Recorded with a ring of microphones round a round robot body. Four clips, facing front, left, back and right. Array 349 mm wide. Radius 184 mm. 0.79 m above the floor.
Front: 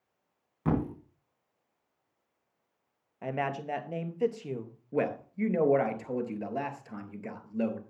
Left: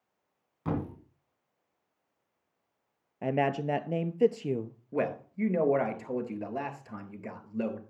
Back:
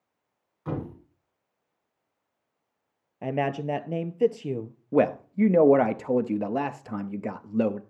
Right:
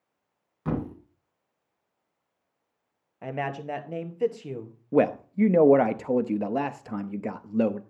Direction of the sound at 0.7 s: 10° right.